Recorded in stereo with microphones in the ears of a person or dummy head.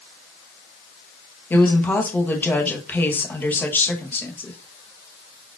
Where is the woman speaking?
15° left (ahead or behind), 0.8 m.